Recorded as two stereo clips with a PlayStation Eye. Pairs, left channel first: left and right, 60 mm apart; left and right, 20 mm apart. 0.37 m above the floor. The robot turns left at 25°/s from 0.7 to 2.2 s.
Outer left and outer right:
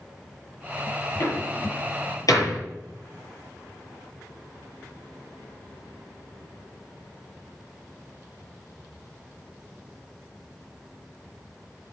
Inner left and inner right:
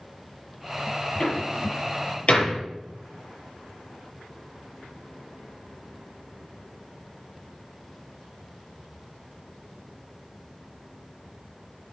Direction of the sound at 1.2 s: 55° left (ahead or behind).